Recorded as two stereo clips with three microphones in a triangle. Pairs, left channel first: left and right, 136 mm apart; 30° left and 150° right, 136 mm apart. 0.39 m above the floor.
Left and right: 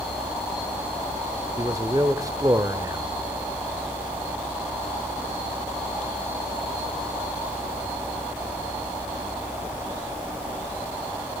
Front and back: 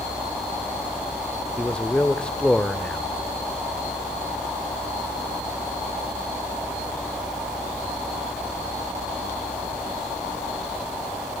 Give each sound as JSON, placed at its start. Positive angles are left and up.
{"t": 1.6, "sound": "a man speaking", "azimuth_deg": -50, "distance_m": 0.9}